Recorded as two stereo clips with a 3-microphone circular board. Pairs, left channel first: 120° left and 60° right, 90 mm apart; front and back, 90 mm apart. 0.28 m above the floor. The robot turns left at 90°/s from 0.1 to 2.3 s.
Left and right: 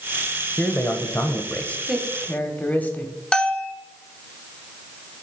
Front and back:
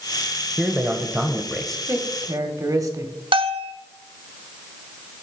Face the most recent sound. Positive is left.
turn(degrees=-160)